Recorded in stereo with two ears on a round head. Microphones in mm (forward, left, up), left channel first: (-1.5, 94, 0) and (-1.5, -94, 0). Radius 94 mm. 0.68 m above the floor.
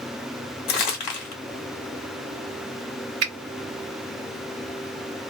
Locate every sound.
0.7 s crumpling: 50° left (ahead or behind), 1.3 m
3.2 s a finger snap: 60° right (ahead or behind), 1.5 m